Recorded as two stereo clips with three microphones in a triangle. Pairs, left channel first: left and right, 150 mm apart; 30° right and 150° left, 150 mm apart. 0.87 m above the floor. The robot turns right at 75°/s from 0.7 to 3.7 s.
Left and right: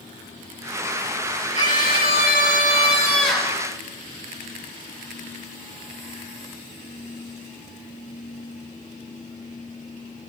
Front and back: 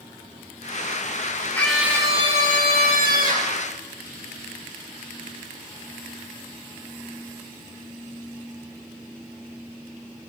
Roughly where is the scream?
Ahead left.